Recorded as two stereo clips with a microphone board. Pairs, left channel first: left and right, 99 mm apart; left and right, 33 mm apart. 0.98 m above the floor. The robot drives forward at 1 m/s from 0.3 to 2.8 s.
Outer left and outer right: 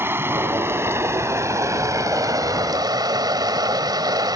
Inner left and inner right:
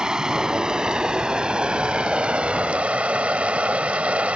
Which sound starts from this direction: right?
Running water, at 0.0 s.